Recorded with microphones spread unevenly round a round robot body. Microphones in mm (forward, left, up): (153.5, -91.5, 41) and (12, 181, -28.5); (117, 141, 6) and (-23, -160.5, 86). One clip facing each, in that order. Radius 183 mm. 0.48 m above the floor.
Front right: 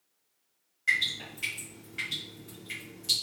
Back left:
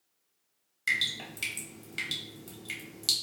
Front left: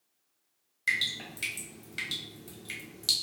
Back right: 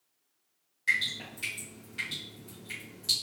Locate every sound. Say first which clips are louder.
0.9 s dripping: back left 1 dB, even; 115° left, 1.4 m